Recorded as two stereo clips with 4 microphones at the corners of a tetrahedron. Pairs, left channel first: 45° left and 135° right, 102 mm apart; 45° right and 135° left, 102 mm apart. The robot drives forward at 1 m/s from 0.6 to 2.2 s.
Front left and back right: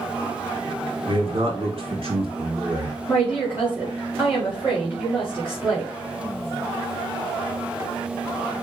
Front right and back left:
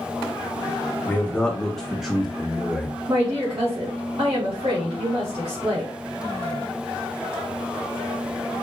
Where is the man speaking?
115° right, 2 m; by 3.0 s 140° right, 3 m.